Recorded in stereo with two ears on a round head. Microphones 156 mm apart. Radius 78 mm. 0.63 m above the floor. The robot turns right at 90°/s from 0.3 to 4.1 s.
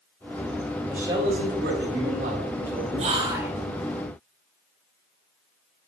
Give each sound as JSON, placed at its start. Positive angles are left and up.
{"t": 0.9, "sound": "a man speaking", "azimuth_deg": -175, "distance_m": 3.0}
{"t": 3.0, "sound": "whispering", "azimuth_deg": -60, "distance_m": 1.2}